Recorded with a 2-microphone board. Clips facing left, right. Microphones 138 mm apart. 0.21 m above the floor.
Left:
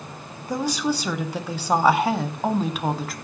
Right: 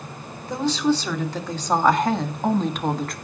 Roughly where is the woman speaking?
Centre.